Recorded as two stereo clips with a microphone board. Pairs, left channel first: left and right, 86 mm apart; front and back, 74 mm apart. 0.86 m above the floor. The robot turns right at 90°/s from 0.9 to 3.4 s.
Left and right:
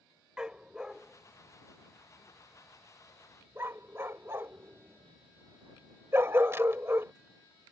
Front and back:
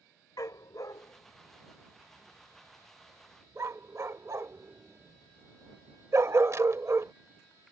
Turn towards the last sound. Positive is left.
turn(degrees=-145)